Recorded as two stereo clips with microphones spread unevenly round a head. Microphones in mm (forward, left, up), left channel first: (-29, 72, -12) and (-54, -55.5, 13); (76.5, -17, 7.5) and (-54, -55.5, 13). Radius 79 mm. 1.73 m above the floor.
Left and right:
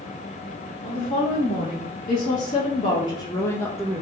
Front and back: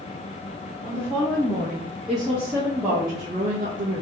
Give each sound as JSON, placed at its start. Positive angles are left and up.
{"t": 0.8, "sound": "a woman speaking", "azimuth_deg": 90, "distance_m": 1.6}